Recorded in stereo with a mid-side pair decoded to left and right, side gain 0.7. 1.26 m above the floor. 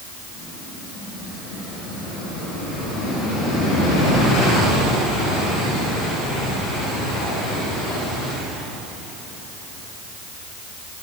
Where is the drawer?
I don't hear a drawer.